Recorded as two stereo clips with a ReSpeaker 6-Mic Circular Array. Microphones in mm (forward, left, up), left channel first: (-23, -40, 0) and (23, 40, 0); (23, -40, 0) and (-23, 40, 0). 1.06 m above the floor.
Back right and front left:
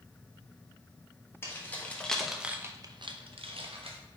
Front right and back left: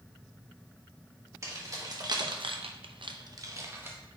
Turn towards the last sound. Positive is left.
turn(degrees=50)